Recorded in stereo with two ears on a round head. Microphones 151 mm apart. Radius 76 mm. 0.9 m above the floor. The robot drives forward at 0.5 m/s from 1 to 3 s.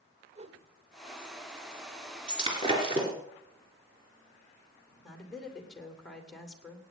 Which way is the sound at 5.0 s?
5° left (ahead or behind).